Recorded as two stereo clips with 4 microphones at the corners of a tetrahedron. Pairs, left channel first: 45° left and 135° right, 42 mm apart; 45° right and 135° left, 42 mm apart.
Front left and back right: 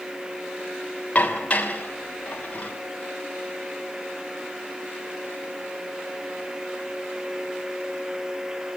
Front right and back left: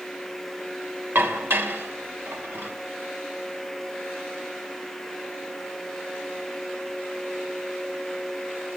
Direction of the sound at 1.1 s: 105° left.